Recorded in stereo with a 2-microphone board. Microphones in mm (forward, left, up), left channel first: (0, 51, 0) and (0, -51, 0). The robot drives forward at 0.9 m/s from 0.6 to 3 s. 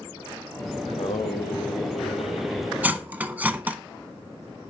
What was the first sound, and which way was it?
Singing, 80° left.